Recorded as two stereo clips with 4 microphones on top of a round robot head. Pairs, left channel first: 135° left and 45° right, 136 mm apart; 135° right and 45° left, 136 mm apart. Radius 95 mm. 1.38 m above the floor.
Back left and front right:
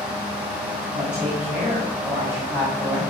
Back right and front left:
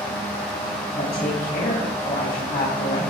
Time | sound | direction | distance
0.9 | a woman speaking | 125° right | 8.5 m